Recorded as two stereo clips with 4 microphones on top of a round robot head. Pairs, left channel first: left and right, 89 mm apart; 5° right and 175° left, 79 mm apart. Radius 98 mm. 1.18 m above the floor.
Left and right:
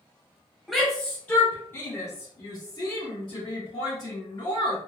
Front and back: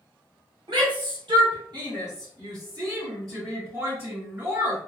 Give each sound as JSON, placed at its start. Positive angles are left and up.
{"t": 0.7, "sound": "a shout", "azimuth_deg": 180, "distance_m": 1.2}